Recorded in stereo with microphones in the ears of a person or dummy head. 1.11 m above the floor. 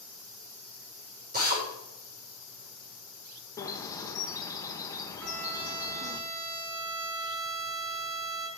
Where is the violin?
70° right (ahead or behind), 2.5 m.